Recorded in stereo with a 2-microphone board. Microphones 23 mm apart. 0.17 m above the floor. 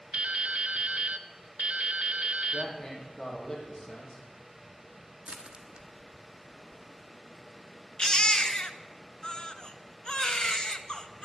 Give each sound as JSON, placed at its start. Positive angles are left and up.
{"t": 0.1, "sound": "dripping", "side_deg": -55, "distance_m": 0.5}
{"t": 2.5, "sound": "a man speaking", "side_deg": 30, "distance_m": 5.5}
{"t": 5.2, "sound": "crushing", "side_deg": -45, "distance_m": 1.2}
{"t": 8.0, "sound": "a baby crying", "side_deg": 40, "distance_m": 0.7}